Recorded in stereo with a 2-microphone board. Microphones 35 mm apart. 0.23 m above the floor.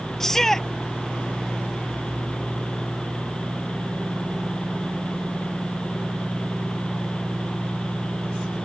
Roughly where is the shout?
Centre.